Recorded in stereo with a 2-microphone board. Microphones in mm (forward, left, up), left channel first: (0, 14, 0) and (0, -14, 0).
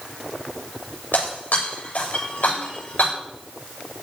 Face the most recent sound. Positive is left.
turn(degrees=80)